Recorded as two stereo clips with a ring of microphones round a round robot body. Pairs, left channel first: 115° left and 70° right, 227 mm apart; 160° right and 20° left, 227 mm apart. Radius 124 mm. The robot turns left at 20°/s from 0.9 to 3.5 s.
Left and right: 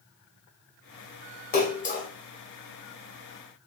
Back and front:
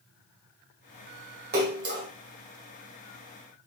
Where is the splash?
65° left, 1.8 m; by 2.1 s 55° left, 1.8 m.